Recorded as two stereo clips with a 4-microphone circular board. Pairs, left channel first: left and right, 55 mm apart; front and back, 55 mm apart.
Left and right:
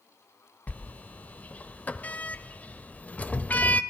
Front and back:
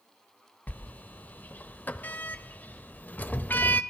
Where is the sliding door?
40° left, 0.6 m.